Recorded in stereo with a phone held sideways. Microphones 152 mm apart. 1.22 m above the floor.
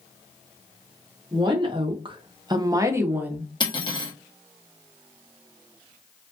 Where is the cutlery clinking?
30° left (ahead or behind), 0.7 m.